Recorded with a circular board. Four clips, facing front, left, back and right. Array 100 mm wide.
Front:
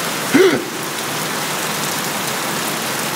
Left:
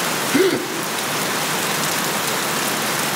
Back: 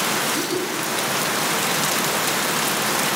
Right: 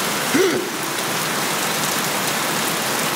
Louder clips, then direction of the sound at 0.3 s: Left 1 dB, front 12 dB; 10° right.